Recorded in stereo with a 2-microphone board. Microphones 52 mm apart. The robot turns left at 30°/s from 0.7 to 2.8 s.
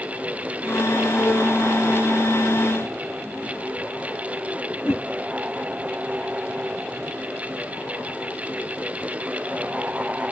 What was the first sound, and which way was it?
A whoosh, 45° left (ahead or behind).